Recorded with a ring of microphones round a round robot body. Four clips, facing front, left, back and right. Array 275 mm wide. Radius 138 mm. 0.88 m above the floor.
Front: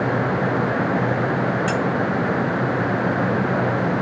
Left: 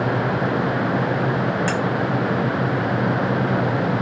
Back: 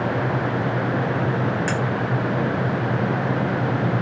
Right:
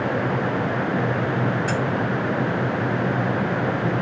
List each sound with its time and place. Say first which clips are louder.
1.7 s cutlery clinking: left 2 dB, front 2 dB; 105° left, 1.4 m